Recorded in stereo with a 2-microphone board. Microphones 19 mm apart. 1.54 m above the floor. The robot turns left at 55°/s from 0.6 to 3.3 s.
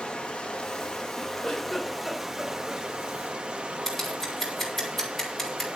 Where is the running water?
65° left, 2.0 m; by 5.8 s 85° right, 2.0 m.